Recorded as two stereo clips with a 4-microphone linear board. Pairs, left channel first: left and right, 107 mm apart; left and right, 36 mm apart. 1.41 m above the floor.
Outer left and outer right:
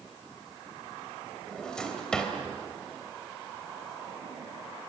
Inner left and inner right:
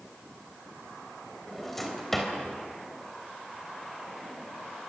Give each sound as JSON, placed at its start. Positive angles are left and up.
{"t": 1.5, "sound": "a drawer", "side_deg": 5, "distance_m": 3.5}